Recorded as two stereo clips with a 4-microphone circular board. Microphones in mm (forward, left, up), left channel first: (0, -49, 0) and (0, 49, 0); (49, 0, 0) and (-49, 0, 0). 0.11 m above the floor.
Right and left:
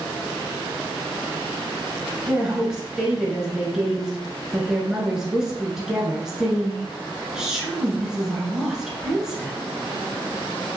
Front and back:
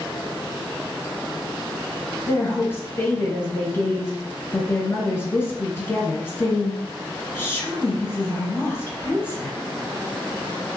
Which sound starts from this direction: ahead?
A woman speaking, at 2.3 s.